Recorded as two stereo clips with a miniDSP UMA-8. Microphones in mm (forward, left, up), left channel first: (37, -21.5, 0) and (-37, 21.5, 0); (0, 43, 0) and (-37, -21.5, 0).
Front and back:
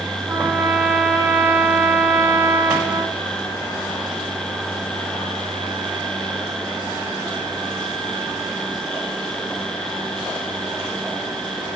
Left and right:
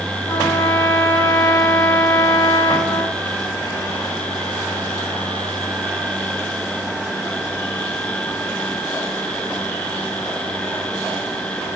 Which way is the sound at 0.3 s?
85° left.